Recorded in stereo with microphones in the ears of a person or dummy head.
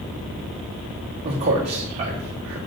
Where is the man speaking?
35° right (ahead or behind), 1.3 m.